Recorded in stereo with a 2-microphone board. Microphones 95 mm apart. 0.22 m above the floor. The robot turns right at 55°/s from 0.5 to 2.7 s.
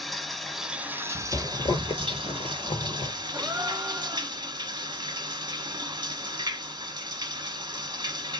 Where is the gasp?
20° right (ahead or behind), 1.0 m.